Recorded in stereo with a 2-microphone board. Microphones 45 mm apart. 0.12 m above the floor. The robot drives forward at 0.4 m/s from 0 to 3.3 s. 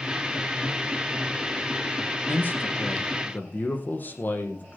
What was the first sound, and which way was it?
A man speaking, 45° left (ahead or behind).